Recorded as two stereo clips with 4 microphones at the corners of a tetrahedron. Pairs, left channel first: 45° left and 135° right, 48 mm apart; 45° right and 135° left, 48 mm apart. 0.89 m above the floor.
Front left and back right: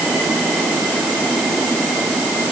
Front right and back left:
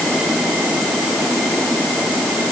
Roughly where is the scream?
No scream in this recording.